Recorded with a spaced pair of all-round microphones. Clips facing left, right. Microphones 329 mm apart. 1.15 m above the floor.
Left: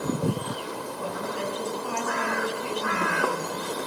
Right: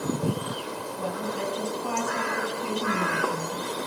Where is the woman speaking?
55° right (ahead or behind), 9.5 m.